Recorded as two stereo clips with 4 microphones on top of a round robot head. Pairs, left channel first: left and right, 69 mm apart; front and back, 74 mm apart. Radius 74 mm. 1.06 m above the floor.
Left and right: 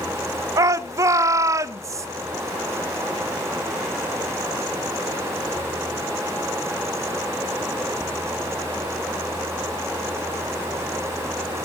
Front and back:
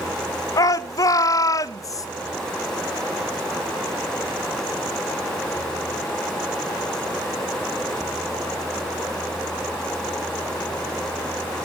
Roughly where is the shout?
Ahead right.